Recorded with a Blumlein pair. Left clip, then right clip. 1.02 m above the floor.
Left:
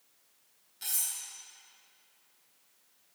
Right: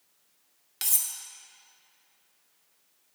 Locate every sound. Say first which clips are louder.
0.8 s cutlery clinking: right 5 dB; 50° right, 0.6 m